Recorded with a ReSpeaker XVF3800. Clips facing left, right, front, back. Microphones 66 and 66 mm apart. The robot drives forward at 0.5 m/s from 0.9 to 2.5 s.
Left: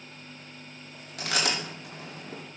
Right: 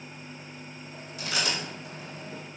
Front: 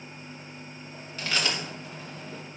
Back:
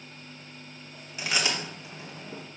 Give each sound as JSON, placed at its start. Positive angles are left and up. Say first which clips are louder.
{"t": 1.2, "sound": "chewing", "louder": "left 2 dB, even", "azimuth_deg": 105, "distance_m": 2.5}